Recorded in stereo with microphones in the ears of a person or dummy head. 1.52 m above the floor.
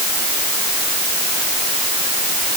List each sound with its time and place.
Only background noise.